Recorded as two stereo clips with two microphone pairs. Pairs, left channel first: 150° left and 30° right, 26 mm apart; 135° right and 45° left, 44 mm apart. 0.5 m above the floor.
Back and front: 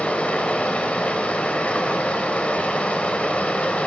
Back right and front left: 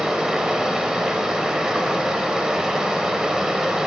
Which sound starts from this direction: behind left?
Running water, at 0.0 s.